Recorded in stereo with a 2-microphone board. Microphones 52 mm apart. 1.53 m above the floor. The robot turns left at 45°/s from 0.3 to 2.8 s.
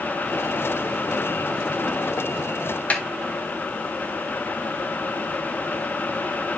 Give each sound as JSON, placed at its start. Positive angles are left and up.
{"t": 2.9, "sound": "a snare drum", "side_deg": 30, "distance_m": 1.0}